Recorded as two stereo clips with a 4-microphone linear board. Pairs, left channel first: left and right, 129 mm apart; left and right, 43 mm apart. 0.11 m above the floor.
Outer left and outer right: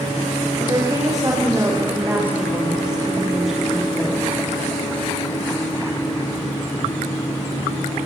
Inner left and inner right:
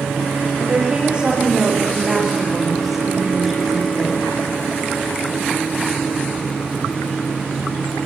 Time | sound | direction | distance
0.6 | a woman speaking | 30° right (ahead or behind) | 6.5 m